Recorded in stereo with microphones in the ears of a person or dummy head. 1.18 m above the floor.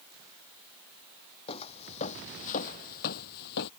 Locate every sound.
1.5 s footsteps: 30° left (ahead or behind); by 3.7 s 60° left (ahead or behind)